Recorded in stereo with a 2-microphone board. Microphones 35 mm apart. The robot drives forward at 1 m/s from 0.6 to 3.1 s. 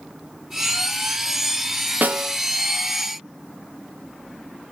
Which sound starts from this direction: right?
A snare drum, at 2.0 s.